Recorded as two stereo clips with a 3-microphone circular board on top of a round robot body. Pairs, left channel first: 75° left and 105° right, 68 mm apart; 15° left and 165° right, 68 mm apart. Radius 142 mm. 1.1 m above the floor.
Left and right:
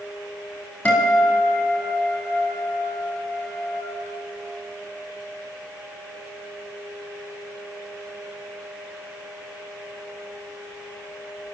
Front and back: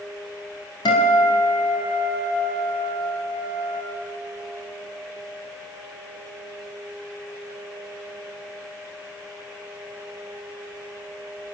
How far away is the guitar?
About 4.5 m.